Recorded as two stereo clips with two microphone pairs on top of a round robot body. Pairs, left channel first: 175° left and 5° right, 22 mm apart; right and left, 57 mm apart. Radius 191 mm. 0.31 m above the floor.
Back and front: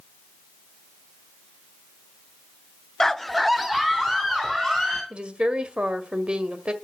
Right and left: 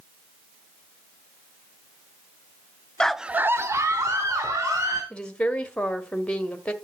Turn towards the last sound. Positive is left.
turn(degrees=-20)